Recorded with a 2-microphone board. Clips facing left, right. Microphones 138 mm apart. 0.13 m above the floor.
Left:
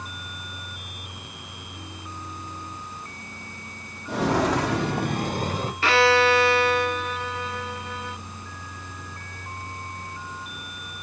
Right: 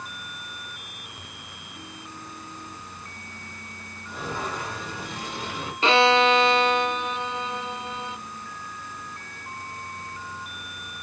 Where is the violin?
20° right (ahead or behind), 0.5 m.